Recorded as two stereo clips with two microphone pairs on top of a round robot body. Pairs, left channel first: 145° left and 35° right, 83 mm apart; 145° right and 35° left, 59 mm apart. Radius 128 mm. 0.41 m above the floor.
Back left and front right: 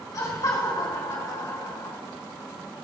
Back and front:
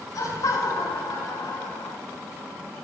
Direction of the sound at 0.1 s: 170° right.